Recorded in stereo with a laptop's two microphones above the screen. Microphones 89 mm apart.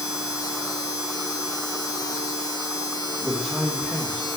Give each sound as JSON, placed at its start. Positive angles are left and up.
{"t": 0.0, "sound": "a machine running", "side_deg": 50, "distance_m": 3.0}
{"t": 3.2, "sound": "a man speaking", "side_deg": -5, "distance_m": 1.3}